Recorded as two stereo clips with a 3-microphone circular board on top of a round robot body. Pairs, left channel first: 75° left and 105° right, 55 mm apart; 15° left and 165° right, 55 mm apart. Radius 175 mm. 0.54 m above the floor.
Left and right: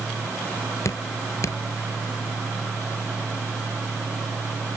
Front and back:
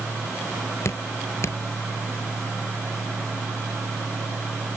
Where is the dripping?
50° left.